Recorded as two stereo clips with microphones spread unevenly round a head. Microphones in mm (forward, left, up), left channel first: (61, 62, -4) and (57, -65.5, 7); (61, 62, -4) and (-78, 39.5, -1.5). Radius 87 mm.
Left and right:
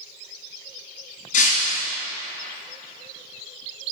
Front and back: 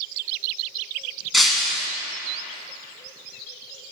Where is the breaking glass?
100° left, 1.5 m.